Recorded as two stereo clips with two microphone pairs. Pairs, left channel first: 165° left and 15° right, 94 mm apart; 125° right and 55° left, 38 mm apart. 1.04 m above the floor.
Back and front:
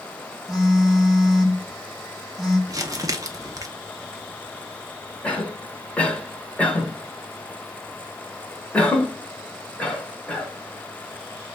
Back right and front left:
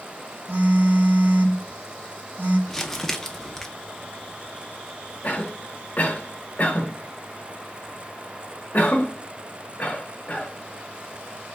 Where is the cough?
120° right, 1.1 m.